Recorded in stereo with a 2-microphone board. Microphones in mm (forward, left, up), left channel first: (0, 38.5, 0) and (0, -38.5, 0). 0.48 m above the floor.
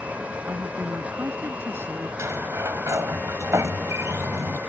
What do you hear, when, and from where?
0.5 s a man speaking: 30° right (ahead or behind)
2.2 s a sliding door: 40° right (ahead or behind)